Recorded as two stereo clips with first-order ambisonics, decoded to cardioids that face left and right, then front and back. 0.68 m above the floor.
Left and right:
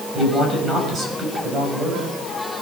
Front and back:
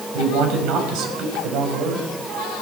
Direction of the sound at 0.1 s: 160° right.